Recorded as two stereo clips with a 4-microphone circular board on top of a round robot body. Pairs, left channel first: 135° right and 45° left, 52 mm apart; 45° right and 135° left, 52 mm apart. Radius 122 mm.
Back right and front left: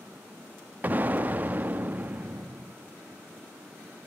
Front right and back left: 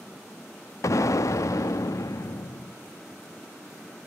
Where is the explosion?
15° right, 0.7 m.